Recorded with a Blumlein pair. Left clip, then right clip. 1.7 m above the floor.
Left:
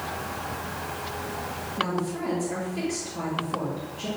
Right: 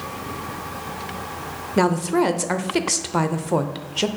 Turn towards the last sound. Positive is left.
turn(degrees=-45)